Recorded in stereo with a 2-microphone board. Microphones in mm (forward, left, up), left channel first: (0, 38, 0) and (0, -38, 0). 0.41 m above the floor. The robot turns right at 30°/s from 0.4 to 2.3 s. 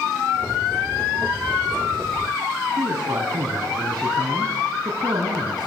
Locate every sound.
2.8 s a man speaking: 55° right (ahead or behind), 4 m